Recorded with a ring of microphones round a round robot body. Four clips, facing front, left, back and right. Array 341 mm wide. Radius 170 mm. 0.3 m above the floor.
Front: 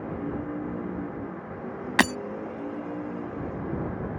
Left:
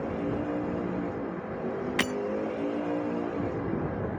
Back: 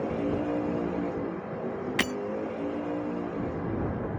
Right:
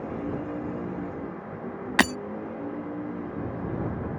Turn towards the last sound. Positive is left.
turn(degrees=-45)